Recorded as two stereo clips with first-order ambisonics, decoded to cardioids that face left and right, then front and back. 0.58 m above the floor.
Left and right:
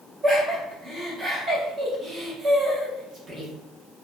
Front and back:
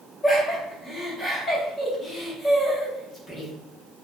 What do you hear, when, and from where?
0.2 s laughter: 55° right, 0.7 m